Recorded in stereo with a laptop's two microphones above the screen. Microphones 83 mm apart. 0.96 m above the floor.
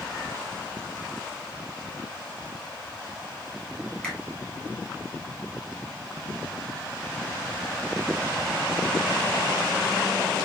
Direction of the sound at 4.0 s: 15° left (ahead or behind).